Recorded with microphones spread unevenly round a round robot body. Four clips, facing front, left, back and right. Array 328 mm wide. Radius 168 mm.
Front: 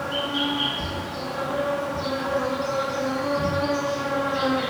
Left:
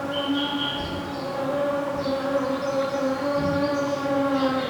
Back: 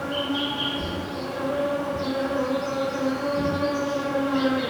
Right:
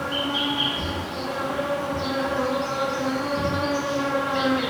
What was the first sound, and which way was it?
An insect, 95° right.